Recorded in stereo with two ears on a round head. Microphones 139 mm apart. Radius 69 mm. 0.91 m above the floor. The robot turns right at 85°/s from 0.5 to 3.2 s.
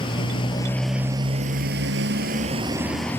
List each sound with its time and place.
0.0 s a motorcycle: 145° left; by 3.2 s 15° left